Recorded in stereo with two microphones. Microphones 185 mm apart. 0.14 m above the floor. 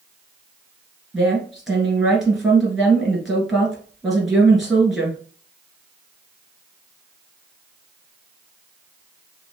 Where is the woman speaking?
Centre (ahead or behind), 1.7 m.